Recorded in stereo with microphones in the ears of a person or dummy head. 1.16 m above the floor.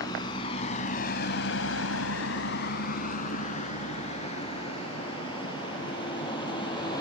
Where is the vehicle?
20° left (ahead or behind); by 7.0 s 25° left (ahead or behind).